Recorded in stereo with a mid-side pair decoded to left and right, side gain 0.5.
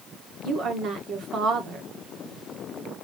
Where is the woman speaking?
65° right, 1.8 m.